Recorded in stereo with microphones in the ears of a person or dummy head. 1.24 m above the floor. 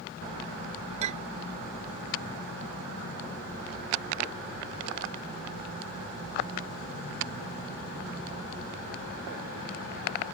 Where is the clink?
35° right (ahead or behind).